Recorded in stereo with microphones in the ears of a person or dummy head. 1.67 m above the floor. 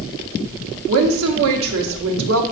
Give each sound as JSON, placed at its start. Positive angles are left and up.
{"t": 0.9, "sound": "a woman speaking", "side_deg": -75, "distance_m": 1.2}